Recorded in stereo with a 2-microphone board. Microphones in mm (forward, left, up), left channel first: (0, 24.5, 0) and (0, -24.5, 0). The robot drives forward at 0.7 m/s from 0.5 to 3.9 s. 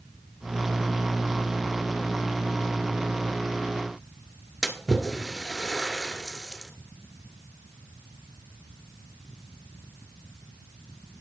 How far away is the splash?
About 1.1 m.